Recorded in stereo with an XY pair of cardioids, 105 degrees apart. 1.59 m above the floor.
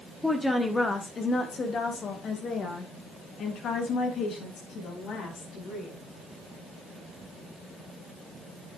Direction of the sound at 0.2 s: 5° left.